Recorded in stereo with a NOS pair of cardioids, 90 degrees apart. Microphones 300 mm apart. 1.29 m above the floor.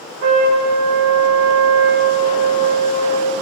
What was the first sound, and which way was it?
A trumpet, 60° right.